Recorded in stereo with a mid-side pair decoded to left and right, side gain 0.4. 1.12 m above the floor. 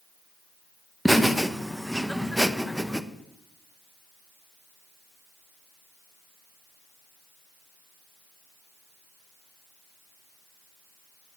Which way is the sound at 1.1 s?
Straight ahead.